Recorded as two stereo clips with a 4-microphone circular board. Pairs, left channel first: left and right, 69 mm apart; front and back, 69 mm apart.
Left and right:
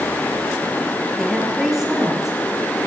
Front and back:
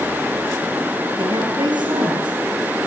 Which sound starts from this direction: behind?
A woman speaking, at 1.2 s.